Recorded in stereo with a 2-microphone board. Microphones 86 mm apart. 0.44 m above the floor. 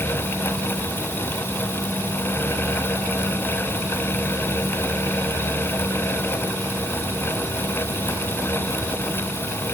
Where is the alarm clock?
No alarm clock in this recording.